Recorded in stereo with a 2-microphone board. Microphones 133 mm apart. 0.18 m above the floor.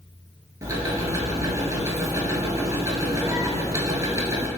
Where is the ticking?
25° right (ahead or behind), 0.7 m.